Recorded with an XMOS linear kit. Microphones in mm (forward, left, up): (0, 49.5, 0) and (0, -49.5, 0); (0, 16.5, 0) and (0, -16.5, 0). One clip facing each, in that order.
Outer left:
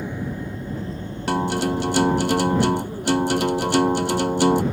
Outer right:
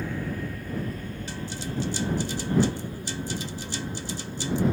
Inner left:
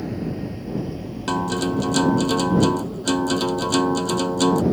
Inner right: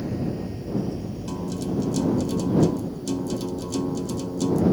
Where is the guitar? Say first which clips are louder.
Outer left 17 dB, inner left 8 dB; 80° left.